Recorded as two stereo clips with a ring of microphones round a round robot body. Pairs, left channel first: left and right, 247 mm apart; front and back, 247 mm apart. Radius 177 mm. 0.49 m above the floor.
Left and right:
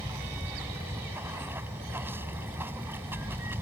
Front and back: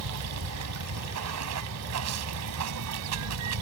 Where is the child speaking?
No child speaking in this recording.